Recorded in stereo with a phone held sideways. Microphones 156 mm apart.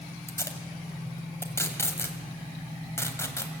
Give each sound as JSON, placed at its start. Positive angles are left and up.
{"t": 0.3, "sound": "tape being pulled", "side_deg": 15, "distance_m": 2.0}